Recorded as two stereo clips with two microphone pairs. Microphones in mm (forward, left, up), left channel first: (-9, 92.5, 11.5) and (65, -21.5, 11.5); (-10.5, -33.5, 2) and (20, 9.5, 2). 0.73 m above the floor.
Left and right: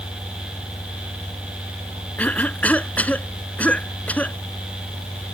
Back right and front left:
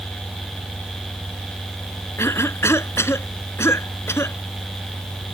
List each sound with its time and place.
2.2 s a cough: 160° right